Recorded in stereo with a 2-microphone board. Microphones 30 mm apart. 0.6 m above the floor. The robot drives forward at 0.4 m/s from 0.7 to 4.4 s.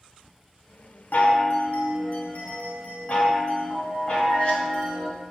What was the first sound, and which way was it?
A chime, 70° left (ahead or behind).